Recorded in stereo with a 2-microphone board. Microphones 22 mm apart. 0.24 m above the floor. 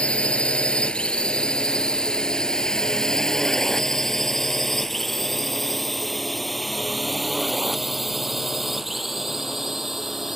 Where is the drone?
55° left (ahead or behind); by 10.4 s 10° right (ahead or behind).